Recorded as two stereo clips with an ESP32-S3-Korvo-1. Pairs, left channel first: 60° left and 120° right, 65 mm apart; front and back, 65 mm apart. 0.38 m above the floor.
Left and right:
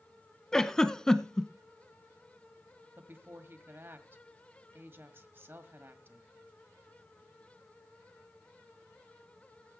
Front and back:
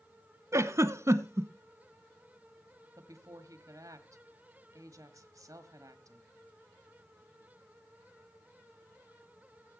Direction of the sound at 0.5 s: 140° left.